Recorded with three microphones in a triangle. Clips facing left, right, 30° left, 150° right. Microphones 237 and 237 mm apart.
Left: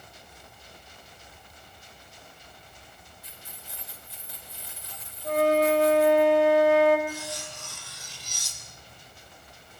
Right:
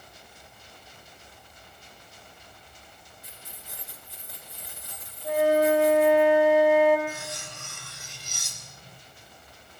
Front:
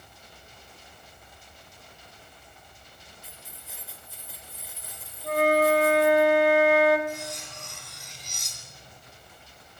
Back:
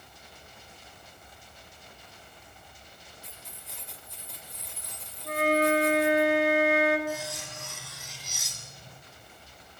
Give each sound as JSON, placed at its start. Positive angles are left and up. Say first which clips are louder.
{"t": 3.2, "sound": "keys jangling", "louder": "right 2 dB, even", "azimuth_deg": -55, "distance_m": 4.0}
{"t": 5.2, "sound": "a flute", "louder": "right 1 dB, front 3 dB", "azimuth_deg": -10, "distance_m": 4.0}
{"t": 7.1, "sound": "cutlery clinking", "louder": "left 1 dB, back 1 dB", "azimuth_deg": -65, "distance_m": 4.5}